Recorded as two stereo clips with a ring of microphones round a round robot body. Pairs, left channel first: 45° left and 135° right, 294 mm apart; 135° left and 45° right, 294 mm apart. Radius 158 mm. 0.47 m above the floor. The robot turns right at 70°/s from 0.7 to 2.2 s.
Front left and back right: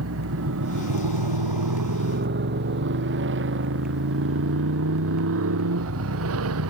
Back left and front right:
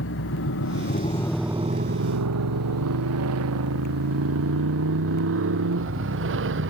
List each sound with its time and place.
0.0 s a motorcycle: straight behind; by 6.7 s 95° right